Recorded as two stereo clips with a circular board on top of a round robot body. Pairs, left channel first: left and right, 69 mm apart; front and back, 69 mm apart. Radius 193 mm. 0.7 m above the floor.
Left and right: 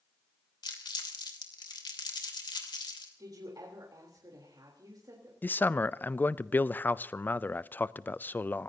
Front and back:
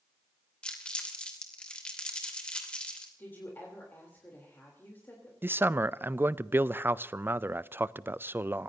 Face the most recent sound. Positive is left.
turn(degrees=140)